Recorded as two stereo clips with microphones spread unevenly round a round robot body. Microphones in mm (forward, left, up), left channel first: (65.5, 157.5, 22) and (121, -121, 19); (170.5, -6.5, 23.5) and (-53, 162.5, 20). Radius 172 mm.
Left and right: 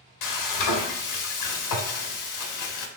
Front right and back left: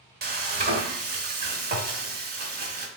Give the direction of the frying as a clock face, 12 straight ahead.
9 o'clock.